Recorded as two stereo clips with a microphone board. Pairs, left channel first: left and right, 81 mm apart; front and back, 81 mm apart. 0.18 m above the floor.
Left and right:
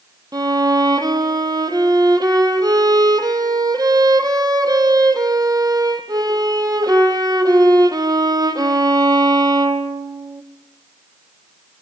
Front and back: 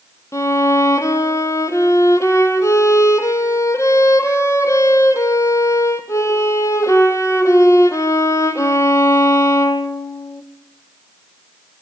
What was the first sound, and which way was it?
A violin, 50° right.